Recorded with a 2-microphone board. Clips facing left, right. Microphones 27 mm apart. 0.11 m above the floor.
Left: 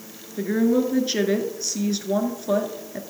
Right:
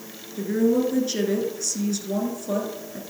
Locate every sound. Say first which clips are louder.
0.4 s a woman speaking: left 1 dB; 30° left (ahead or behind), 1.2 m